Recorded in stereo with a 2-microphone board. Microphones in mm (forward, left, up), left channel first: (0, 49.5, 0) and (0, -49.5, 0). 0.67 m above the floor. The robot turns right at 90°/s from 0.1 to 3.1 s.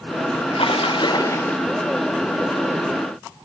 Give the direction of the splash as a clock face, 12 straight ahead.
10 o'clock.